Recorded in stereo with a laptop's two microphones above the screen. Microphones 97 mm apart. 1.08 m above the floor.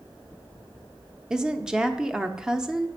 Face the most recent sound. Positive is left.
turn(degrees=-5)  # may be behind; listen again after turning